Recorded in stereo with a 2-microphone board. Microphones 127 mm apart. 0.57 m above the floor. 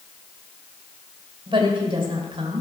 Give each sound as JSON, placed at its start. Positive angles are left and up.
{"t": 1.5, "sound": "a woman speaking", "side_deg": -40, "distance_m": 3.0}